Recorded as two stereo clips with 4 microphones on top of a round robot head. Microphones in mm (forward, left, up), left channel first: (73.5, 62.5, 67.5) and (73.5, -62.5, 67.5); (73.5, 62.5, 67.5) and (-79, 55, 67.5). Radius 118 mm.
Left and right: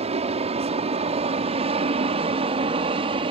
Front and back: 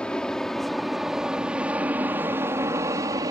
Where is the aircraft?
80° right; by 3.3 s 115° right.